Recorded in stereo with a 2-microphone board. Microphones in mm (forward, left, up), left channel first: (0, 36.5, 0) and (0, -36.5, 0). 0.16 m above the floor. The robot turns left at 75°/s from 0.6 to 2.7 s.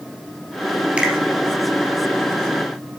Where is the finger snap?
15° right (ahead or behind), 2 m; by 1.1 s 5° right (ahead or behind), 2 m.